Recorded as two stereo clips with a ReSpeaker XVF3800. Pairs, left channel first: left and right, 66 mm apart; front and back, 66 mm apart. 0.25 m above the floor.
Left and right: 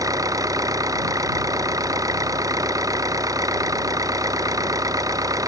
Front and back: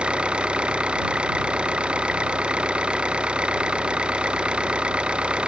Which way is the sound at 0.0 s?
105° right.